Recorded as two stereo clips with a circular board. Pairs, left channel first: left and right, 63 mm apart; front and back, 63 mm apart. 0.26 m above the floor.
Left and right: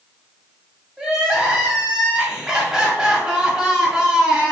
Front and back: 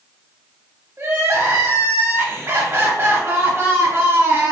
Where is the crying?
160° right, 0.7 m.